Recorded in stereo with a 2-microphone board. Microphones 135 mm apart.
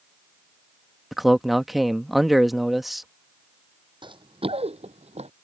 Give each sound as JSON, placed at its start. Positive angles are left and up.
{"t": 1.1, "sound": "a man speaking", "side_deg": 0}
{"t": 4.0, "sound": "running footsteps", "side_deg": -35}